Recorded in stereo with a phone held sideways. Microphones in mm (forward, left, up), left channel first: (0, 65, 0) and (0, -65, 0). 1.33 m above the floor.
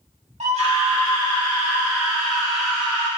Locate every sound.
0.4 s a scream: 60° right (ahead or behind), 1.2 m; by 3.1 s 10° left (ahead or behind), 1.5 m